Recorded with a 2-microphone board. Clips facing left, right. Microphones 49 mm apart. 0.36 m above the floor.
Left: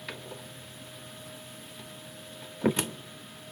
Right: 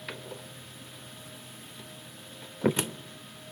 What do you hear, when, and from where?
0.1 s a door slam: 5° right (ahead or behind), 0.7 m